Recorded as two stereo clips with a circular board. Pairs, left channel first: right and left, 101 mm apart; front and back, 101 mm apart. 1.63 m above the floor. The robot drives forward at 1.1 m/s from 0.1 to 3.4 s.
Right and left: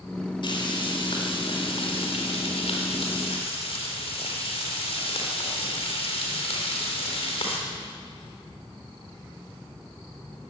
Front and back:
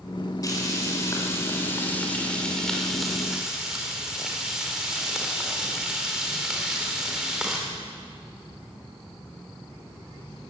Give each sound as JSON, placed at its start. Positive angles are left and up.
{"t": 0.4, "sound": "frying", "azimuth_deg": -55, "distance_m": 5.0}